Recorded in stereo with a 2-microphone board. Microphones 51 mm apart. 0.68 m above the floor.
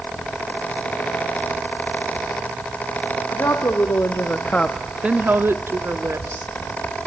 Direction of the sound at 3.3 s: 70° left (ahead or behind).